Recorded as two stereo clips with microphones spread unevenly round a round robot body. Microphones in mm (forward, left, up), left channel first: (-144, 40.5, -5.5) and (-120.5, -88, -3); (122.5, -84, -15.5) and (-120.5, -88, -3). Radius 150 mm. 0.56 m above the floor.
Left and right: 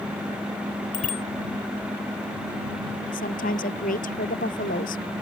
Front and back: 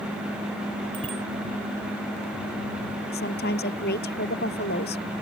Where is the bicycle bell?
105° left.